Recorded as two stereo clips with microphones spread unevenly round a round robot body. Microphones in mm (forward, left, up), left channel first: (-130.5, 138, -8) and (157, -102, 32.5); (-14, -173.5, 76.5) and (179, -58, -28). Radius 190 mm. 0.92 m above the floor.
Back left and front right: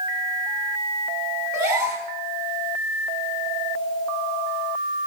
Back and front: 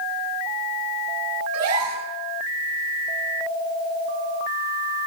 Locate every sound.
1.5 s a gasp: 45° left, 9.5 m